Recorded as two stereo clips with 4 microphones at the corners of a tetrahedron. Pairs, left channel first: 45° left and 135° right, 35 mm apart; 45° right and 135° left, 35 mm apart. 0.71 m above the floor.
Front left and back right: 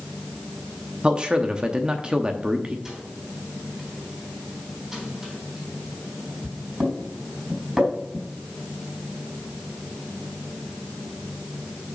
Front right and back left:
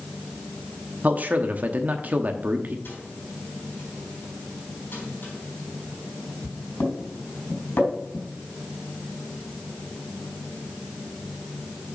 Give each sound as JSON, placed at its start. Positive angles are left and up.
{"t": 1.0, "sound": "a man speaking", "azimuth_deg": 165, "distance_m": 0.8}
{"t": 2.9, "sound": "a microwave", "azimuth_deg": -60, "distance_m": 4.0}